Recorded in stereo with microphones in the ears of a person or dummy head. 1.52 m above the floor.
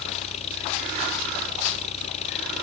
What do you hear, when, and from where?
0.0 s an engine running: 40° left (ahead or behind)